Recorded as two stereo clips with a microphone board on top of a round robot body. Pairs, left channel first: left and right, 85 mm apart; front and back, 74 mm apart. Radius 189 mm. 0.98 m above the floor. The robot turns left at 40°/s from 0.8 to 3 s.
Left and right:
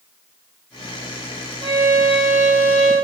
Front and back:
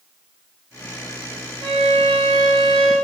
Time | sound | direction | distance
1.6 | a violin | 145° right | 5.5 m